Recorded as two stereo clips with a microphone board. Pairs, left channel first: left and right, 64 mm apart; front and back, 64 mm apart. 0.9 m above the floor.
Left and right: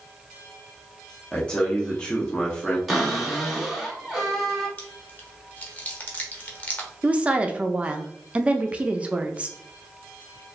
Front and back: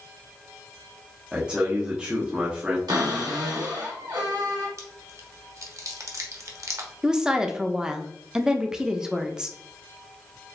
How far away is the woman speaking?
About 0.5 m.